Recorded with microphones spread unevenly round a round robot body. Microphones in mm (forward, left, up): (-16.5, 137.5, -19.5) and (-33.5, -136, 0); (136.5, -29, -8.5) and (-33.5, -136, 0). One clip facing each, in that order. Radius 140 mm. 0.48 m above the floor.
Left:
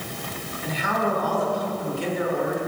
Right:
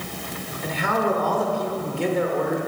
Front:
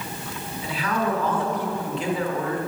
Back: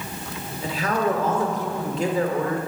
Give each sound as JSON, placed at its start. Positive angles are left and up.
{"t": 0.6, "sound": "a man speaking", "azimuth_deg": -110, "distance_m": 1.7}